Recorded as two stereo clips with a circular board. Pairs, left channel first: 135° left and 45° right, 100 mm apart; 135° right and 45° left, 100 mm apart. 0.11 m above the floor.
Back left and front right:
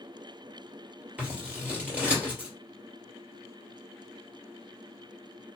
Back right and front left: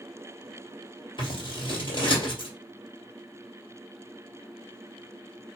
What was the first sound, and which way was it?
Scissors, 115° right.